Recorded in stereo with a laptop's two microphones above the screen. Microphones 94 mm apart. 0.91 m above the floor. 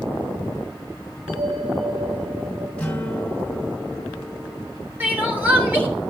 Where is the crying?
20° right (ahead or behind), 2.5 m.